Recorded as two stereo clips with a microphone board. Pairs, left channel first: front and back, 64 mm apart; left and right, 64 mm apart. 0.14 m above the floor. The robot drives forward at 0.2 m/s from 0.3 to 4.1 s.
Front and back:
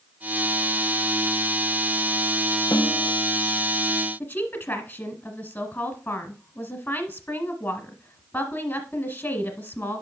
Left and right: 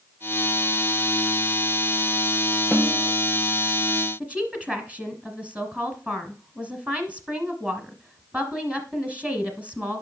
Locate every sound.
2.7 s a snare drum: 20° right, 2 m
4.2 s a woman speaking: 35° right, 1.4 m